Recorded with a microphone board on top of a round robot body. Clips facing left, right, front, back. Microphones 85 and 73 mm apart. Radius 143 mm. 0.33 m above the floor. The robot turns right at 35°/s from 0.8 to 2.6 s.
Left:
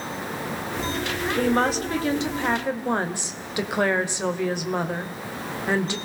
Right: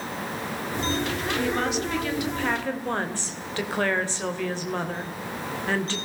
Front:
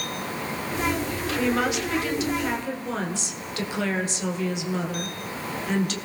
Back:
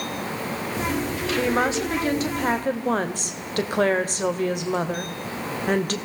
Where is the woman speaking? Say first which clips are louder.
Left 6 dB, back 2 dB; 120° left, 2.5 m; by 6.0 s 160° left, 2.5 m.